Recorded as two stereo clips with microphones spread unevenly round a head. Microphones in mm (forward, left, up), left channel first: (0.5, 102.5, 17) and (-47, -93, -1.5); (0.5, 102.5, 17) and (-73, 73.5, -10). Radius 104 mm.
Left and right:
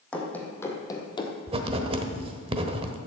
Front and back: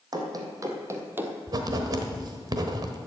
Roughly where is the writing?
Behind right.